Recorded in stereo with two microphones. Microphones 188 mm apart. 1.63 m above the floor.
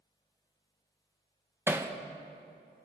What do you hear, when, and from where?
1.7 s hammering: 10° right (ahead or behind), 0.8 m